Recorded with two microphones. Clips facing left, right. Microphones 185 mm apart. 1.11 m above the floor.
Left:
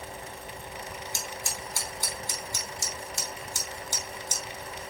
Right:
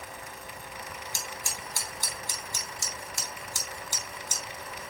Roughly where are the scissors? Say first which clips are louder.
Left 2 dB; centre.